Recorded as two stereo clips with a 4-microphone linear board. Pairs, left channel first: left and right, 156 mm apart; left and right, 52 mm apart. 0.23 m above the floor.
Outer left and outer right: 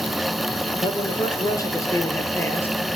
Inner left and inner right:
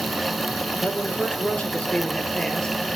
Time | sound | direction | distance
0.8 | a man speaking | 30° left (ahead or behind) | 4.5 m